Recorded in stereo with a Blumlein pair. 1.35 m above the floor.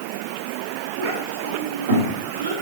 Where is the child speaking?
45° right, 2.5 m; by 2.5 s 70° right, 3.5 m.